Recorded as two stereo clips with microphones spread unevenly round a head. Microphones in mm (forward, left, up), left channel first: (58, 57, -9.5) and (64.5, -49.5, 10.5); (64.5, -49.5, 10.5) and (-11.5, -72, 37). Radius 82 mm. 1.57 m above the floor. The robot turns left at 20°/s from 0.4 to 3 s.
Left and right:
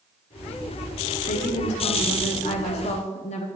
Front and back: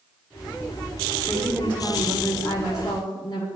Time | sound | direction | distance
1.3 | a woman speaking | 115° left | 0.6 m